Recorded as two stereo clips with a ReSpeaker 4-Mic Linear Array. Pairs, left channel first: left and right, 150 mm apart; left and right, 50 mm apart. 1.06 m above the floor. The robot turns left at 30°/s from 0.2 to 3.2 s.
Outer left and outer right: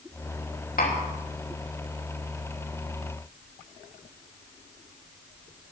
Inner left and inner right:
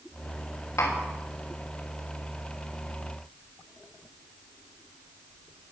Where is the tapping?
85° left, 3 m.